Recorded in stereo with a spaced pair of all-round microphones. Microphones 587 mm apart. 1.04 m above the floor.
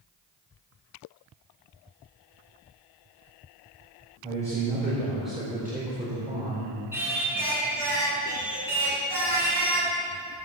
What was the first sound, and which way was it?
A man speaking, 5° left (ahead or behind).